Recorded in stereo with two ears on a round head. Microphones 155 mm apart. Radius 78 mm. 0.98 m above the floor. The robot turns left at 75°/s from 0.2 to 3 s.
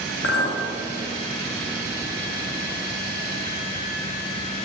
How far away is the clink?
About 1.4 m.